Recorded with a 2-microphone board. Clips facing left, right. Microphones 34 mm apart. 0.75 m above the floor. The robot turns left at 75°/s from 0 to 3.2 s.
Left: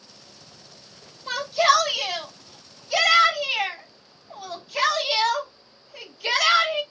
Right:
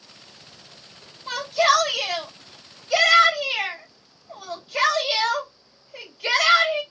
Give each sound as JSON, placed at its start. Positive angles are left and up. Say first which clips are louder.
{"t": 1.3, "sound": "a shout", "louder": "even", "azimuth_deg": 5, "distance_m": 3.5}